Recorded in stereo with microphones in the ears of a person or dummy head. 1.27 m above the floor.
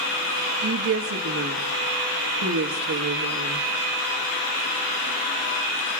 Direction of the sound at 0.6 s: 75° right (ahead or behind).